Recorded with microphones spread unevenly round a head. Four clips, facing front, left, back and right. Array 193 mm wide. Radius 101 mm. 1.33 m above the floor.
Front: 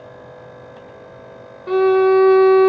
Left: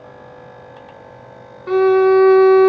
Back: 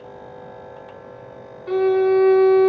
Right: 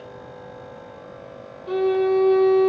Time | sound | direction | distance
1.7 | a violin | 50° left | 0.6 m